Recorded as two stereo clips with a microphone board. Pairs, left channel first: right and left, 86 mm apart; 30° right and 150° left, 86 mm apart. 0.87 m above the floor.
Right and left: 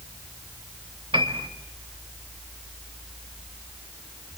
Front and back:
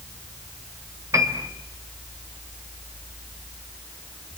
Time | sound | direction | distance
1.1 | a piano | 95° left | 3 m